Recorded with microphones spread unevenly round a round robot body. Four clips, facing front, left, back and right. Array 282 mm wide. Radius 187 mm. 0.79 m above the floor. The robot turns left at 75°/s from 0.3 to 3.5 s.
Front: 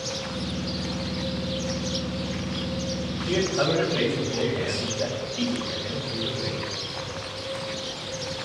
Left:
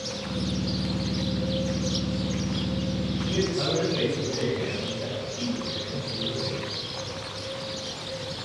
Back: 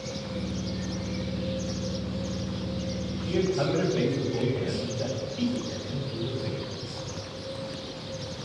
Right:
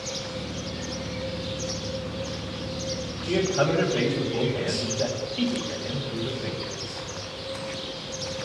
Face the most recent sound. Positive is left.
turn(degrees=-45)